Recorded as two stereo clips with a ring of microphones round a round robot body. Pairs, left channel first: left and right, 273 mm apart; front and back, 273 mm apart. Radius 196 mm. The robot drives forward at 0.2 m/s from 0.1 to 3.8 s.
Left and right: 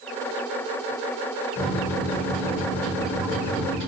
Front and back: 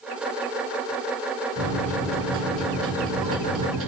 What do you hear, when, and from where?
1.6 s a microwave: 155° left, 2 m; by 3.9 s 160° left, 2.5 m